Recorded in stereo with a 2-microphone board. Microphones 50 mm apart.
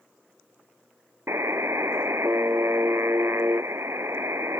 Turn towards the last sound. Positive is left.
turn(degrees=-70)  # may be behind; listen again after turning